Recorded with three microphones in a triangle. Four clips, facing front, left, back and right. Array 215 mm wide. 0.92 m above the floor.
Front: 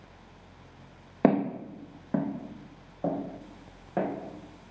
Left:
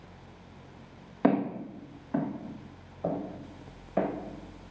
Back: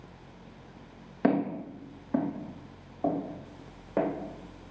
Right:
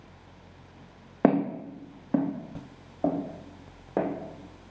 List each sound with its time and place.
1.2 s footsteps: 50° right, 2 m; by 4.1 s 90° right, 3 m